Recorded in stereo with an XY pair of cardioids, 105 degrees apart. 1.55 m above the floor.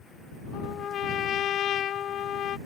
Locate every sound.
0.5 s a trumpet: 60° left